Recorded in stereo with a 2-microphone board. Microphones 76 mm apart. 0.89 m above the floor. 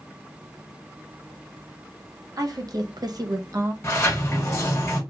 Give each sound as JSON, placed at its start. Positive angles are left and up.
{"t": 2.4, "sound": "a woman speaking", "side_deg": -50, "distance_m": 1.0}
{"t": 3.8, "sound": "a sliding door", "side_deg": 30, "distance_m": 1.5}